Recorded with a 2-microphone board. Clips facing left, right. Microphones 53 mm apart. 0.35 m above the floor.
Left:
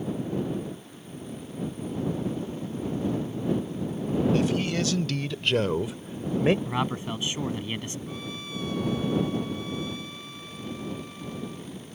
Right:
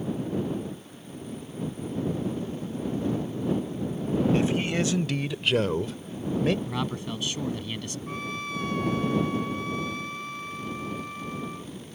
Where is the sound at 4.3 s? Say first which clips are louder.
Even; 25° right (ahead or behind); by 6.5 s 30° left (ahead or behind).